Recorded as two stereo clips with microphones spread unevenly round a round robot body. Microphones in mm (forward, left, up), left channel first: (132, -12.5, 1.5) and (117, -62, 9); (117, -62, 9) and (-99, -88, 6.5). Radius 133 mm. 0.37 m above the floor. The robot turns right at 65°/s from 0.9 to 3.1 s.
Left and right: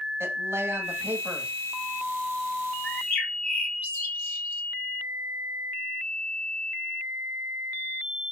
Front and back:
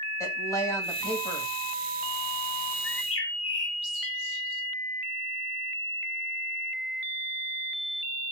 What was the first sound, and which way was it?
A woman speaking, 70° right.